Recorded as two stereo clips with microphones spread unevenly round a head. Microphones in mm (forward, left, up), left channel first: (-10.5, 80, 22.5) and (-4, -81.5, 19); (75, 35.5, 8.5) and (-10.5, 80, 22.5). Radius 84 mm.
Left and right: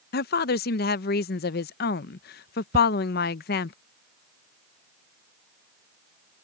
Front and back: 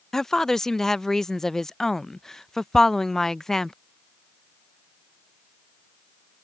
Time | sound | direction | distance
0.1 | a woman speaking | 60° left | ?
2.7 | ticking | 135° right | ?